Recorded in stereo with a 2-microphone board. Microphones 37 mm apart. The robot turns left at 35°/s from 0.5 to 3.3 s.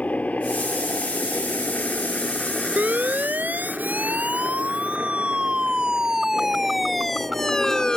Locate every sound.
0.0 s a helicopter: 45° left (ahead or behind); by 8.0 s 70° right (ahead or behind)
2.8 s a siren: 50° right (ahead or behind); by 8.0 s 20° left (ahead or behind)